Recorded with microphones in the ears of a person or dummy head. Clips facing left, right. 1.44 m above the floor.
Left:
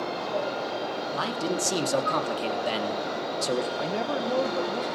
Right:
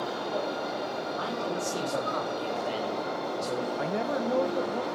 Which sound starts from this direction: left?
A man speaking, at 1.1 s.